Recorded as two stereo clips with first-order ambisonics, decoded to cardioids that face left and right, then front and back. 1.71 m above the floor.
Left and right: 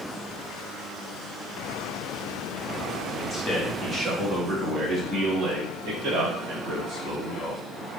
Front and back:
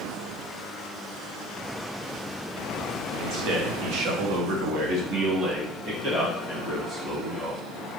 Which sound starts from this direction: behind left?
A man speaking, at 3.2 s.